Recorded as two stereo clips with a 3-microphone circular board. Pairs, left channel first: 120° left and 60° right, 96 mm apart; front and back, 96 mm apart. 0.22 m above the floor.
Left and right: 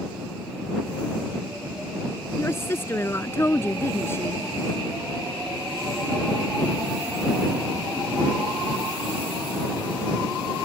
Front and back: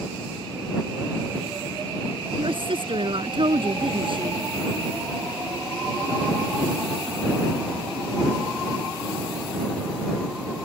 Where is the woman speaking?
Straight behind.